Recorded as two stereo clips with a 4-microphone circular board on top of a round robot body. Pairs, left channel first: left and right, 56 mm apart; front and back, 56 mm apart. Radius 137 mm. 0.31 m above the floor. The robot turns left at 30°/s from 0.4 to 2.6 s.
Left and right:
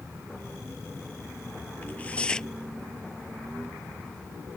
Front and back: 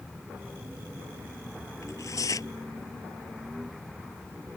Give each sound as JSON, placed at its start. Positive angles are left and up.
{"t": 1.8, "sound": "tearing paper", "azimuth_deg": 30}